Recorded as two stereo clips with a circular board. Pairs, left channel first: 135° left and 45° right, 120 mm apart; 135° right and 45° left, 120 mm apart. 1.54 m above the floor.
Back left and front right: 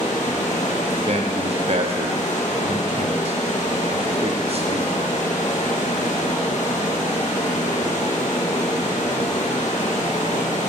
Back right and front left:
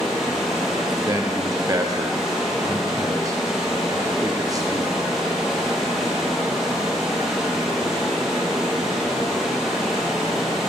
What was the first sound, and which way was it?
Running water, 130° left.